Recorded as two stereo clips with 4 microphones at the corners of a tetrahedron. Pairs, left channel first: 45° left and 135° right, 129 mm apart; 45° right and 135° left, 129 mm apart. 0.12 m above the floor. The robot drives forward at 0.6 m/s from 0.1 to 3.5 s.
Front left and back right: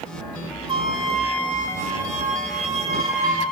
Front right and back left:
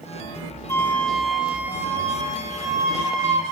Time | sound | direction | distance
0.7 | a flute | 105° right | 0.6 m